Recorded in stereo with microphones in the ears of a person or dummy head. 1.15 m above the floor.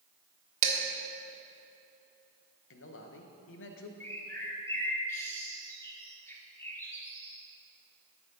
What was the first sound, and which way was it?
Dishes clattering, 40° right (ahead or behind).